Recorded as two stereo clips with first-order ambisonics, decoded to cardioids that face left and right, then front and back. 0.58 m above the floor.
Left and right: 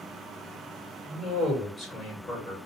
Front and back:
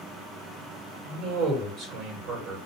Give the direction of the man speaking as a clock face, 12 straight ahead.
7 o'clock.